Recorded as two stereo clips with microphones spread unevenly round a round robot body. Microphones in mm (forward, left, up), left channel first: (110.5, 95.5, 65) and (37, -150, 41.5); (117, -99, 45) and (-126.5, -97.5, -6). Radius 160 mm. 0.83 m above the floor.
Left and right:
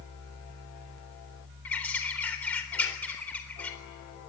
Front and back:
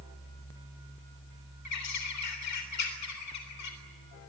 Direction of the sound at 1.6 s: 10° right.